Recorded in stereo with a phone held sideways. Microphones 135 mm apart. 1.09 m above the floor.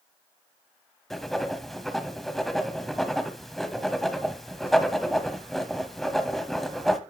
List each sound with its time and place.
1.1 s writing: centre (ahead or behind), 1.1 m